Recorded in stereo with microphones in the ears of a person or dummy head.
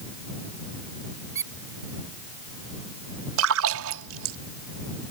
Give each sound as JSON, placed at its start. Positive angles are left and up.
{"t": 1.4, "sound": "a squeak", "side_deg": -15}
{"t": 3.4, "sound": "a splash", "side_deg": -80}